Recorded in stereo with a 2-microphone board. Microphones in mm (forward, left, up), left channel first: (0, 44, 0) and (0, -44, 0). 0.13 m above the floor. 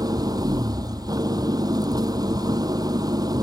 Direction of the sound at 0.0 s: 45° right (ahead or behind).